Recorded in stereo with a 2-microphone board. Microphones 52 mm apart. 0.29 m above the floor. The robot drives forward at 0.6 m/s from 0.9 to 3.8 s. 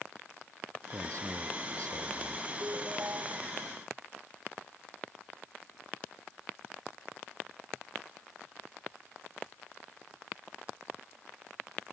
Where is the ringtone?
50° right (ahead or behind).